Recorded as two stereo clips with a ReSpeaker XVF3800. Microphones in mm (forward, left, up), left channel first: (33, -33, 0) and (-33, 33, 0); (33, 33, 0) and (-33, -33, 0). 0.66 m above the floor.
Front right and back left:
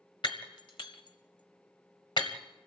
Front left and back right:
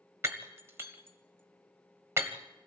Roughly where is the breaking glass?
Right.